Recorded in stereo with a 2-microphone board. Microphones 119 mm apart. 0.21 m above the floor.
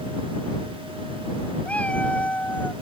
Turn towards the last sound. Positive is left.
turn(degrees=15)  # may be behind; listen again after turning